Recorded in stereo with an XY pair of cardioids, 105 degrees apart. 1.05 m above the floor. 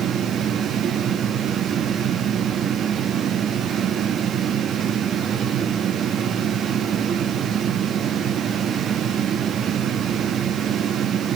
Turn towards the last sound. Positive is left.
turn(degrees=-60)